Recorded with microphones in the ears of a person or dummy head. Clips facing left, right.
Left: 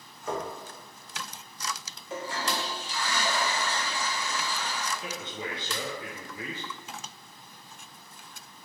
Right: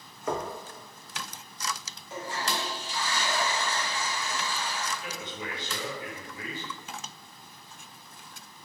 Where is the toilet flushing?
60° left (ahead or behind), 0.8 m.